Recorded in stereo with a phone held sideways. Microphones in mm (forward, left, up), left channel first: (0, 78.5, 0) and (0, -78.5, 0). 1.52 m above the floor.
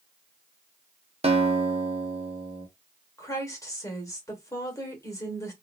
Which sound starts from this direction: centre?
A woman speaking, at 3.2 s.